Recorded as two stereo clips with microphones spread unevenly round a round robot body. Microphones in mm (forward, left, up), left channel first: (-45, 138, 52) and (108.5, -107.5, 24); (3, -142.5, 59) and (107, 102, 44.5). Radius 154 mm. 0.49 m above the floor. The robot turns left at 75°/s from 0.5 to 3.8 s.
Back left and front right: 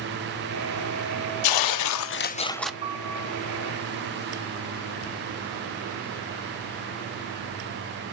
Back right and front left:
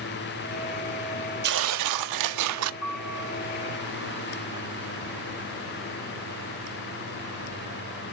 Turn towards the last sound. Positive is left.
turn(degrees=160)